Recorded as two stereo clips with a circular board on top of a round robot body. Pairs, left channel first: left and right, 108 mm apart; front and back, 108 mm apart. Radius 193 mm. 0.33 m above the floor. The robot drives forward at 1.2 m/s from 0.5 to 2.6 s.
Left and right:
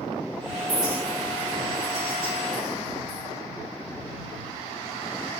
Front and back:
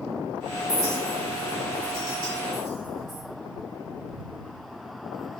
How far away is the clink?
About 8 m.